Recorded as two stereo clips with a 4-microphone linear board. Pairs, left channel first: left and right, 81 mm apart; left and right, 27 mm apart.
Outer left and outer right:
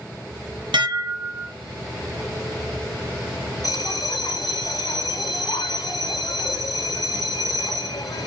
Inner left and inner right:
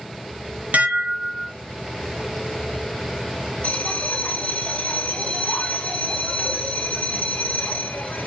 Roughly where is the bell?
Left.